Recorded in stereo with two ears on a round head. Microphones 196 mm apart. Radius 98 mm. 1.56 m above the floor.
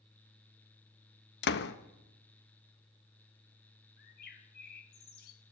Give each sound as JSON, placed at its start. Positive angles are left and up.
{"t": 1.4, "sound": "a door slam", "side_deg": 50, "distance_m": 1.3}
{"t": 4.0, "sound": "a bird", "side_deg": 45, "distance_m": 2.5}